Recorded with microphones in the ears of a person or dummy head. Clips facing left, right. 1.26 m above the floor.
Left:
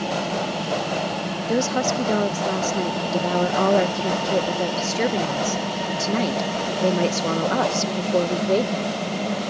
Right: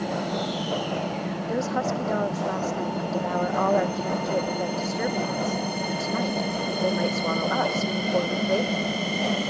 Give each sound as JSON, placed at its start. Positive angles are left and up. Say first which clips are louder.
{"t": 1.4, "sound": "a woman speaking", "louder": "left 5 dB", "side_deg": 45}